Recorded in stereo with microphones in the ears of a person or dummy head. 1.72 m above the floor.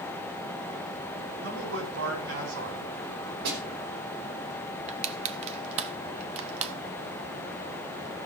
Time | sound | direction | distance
1.4 | a man speaking | 85° right | 7.5 m
3.5 | a snare drum | 65° right (ahead or behind) | 3 m
4.9 | crushing | 40° right (ahead or behind) | 0.9 m